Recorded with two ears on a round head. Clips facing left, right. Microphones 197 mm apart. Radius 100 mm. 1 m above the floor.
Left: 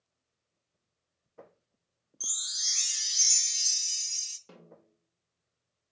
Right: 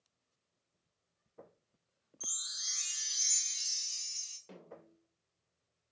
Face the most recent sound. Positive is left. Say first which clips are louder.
# right 1 dB
turn(degrees=10)  # may be behind; listen again after turning